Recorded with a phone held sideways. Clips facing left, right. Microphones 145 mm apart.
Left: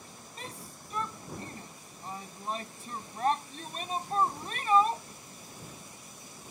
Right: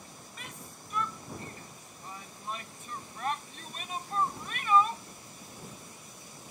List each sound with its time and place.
0.4 s a shout: 35° left (ahead or behind)